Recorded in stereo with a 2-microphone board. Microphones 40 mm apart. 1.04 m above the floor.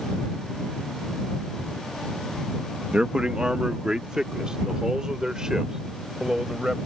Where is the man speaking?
25° right (ahead or behind); by 6.9 s 15° right (ahead or behind).